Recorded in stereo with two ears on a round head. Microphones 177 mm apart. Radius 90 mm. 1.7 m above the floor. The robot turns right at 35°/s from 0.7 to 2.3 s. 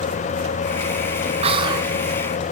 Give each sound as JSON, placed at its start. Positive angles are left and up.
{"t": 1.4, "sound": "whispering", "side_deg": -30, "distance_m": 1.7}